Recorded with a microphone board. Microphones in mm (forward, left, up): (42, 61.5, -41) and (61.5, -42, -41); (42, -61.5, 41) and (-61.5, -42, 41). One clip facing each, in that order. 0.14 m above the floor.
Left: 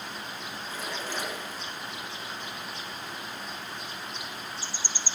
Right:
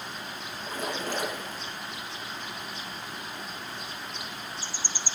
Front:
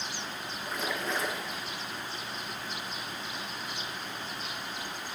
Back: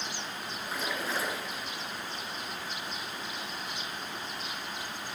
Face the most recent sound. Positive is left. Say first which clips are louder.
# right 5 dB, front 1 dB
turn(degrees=-105)